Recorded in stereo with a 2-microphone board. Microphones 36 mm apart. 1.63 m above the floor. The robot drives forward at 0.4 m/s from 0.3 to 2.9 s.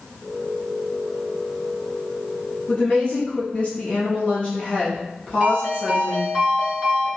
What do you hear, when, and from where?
2.7 s a woman speaking: 40° left (ahead or behind), 0.9 m; by 6.3 s 35° left (ahead or behind), 1.0 m
5.4 s a ringtone: 15° right (ahead or behind), 2.0 m